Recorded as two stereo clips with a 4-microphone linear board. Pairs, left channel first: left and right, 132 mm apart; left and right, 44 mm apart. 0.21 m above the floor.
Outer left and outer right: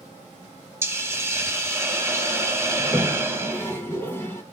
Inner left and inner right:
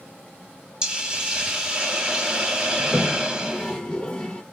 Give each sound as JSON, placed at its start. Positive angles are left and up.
{"t": 0.8, "sound": "a hiss", "side_deg": -20, "distance_m": 0.8}
{"t": 2.8, "sound": "a toilet flushing", "side_deg": 20, "distance_m": 0.8}